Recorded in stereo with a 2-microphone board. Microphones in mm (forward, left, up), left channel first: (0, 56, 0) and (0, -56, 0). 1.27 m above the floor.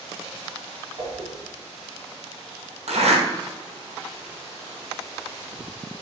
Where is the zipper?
70° right (ahead or behind), 2.5 m.